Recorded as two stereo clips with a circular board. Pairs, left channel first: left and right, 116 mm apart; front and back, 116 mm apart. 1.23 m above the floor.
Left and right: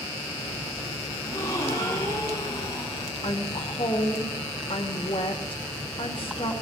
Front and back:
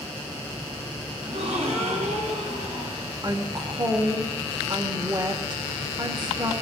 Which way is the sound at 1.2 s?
150° left.